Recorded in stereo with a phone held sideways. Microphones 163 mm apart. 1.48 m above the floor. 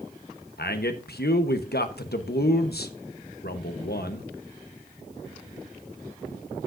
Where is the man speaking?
75° left (ahead or behind), 1.0 m.